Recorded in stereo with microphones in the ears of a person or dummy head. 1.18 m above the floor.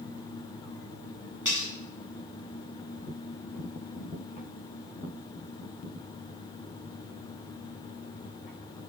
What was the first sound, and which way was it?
Cutlery clinking, 20° right (ahead or behind).